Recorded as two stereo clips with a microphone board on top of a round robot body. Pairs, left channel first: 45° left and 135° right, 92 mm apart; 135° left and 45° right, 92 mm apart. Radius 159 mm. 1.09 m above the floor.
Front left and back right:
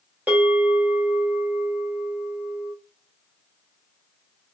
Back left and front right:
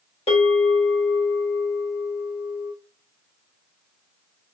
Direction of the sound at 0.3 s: 150° left.